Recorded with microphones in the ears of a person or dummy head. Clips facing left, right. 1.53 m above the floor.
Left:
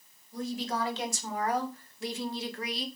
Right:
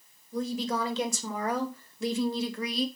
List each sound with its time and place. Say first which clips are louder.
0.3 s a woman speaking: right 3 dB; 75° right (ahead or behind), 3 m; by 2.9 s 80° right, 1.8 m